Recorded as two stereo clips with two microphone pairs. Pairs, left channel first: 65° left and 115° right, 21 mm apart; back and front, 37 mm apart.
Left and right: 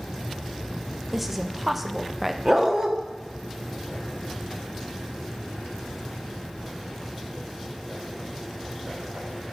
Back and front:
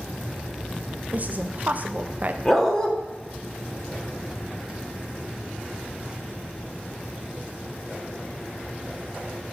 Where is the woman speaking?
35° right, 0.6 m.